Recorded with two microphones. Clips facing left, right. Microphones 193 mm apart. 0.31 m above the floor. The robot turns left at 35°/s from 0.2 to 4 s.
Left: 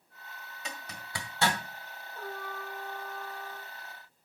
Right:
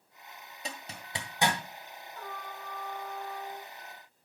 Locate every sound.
0.7 s a zipper: 35° right (ahead or behind), 1.8 m; by 1.6 s 10° right (ahead or behind), 1.8 m
2.1 s a trumpet: 30° left, 3.5 m; by 3.7 s 25° right, 3.5 m